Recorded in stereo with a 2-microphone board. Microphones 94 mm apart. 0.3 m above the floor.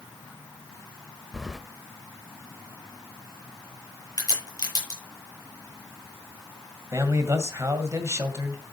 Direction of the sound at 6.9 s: 30° right (ahead or behind).